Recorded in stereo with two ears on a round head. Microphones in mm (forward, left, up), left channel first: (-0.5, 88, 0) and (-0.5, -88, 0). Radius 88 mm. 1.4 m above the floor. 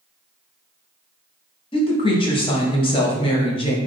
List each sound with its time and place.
1.7 s a woman speaking: 25° left (ahead or behind), 0.6 m